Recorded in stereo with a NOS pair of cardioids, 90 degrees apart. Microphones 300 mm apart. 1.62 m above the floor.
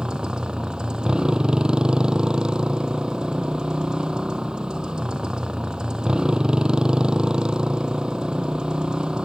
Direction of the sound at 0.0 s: 5° right.